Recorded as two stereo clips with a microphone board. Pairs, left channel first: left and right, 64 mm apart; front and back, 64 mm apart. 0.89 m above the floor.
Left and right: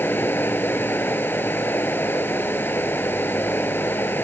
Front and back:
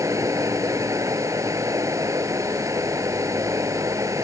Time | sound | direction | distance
0.0 | running water | 145° left | ?